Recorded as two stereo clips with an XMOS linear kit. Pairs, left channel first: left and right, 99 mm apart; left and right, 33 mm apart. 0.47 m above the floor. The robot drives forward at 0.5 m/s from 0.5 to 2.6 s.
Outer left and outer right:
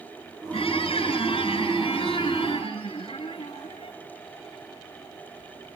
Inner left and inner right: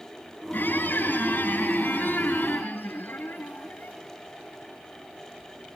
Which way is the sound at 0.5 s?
70° left (ahead or behind).